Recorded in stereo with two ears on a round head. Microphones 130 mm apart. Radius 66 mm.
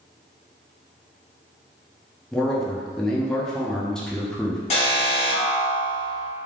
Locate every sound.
2.3 s a man speaking: 5° left (ahead or behind), 0.5 m
4.7 s an alarm: 45° left (ahead or behind), 1.1 m